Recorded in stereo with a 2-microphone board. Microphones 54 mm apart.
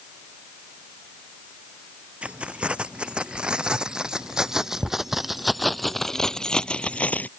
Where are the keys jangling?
20° right (ahead or behind); by 7.3 s 30° left (ahead or behind).